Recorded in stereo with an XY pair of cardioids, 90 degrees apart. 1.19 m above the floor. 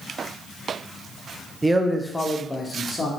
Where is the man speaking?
20° right, 0.7 m; by 3.1 s 35° left, 1.2 m.